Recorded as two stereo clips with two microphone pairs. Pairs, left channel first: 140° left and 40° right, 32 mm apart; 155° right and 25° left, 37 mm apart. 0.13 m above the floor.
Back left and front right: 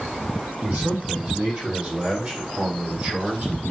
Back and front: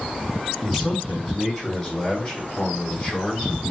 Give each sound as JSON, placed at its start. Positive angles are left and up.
{"t": 0.6, "sound": "a man speaking", "azimuth_deg": -80, "distance_m": 4.5}